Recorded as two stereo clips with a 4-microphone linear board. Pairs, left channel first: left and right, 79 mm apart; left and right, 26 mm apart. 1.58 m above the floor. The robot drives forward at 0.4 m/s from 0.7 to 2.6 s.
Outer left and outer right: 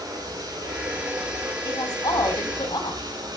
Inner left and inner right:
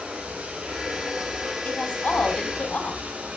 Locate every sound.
0.0 s running water: 55° right (ahead or behind), 7.5 m; by 3.4 s 60° right (ahead or behind), 7 m
1.6 s a woman speaking: 65° left (ahead or behind), 4 m; by 3.0 s 70° left (ahead or behind), 4 m